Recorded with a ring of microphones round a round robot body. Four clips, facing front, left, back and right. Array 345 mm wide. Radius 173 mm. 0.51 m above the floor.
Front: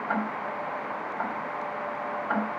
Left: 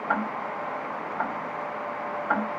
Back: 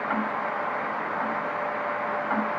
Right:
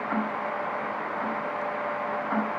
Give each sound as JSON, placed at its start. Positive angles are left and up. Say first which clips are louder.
{"t": 0.1, "sound": "ticking", "louder": "left 2 dB, back 1 dB", "azimuth_deg": 80, "distance_m": 4.0}